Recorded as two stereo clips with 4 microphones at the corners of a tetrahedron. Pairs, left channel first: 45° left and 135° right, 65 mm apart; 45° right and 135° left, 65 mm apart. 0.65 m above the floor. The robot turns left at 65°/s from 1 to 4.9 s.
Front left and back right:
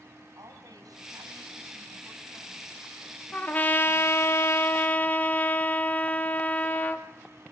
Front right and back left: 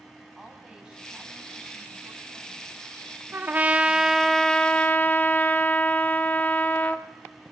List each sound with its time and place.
0.3 s a woman speaking: 150° right, 5 m; by 4.3 s 5° right, 5 m
3.3 s a trumpet: 105° left, 1.3 m; by 7.0 s straight ahead, 1.3 m